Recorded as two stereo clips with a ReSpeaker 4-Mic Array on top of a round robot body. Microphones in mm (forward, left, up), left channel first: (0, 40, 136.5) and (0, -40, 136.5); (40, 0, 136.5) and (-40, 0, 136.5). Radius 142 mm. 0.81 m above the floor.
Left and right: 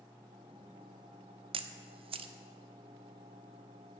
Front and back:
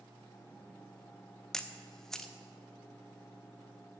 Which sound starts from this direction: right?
A camera shutter, at 1.5 s.